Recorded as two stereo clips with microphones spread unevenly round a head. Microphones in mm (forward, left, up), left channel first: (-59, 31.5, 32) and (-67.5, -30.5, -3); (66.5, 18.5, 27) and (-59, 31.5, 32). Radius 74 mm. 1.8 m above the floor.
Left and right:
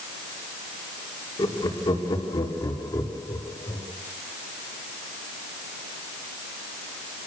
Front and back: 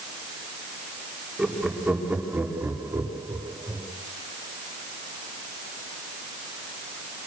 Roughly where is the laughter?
Left.